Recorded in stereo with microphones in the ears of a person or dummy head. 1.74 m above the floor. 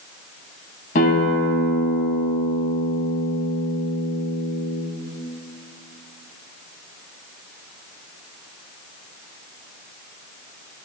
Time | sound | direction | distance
0.9 | a guitar | 50° left (ahead or behind) | 4.5 m